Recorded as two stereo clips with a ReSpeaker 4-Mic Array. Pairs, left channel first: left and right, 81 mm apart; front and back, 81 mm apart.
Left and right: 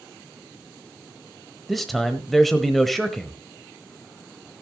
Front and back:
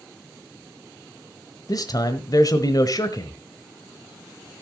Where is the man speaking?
Straight ahead, 1.2 m.